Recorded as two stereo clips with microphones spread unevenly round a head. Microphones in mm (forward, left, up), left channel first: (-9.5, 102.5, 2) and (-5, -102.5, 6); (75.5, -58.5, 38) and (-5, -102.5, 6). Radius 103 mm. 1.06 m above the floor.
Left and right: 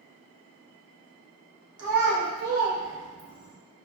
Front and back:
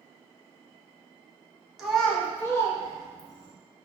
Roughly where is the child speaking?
Right.